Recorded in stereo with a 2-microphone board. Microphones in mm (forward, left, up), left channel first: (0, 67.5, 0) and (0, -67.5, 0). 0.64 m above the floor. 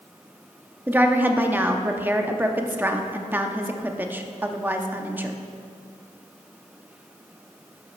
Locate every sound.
0.9 s a woman speaking: 15° right (ahead or behind), 0.7 m